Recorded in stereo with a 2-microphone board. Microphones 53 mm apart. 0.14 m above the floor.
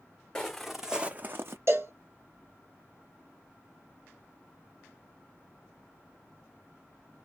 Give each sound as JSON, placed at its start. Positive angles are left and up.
{"t": 0.3, "sound": "footsteps", "side_deg": 10, "distance_m": 0.7}
{"t": 1.7, "sound": "a cowbell", "side_deg": -60, "distance_m": 1.5}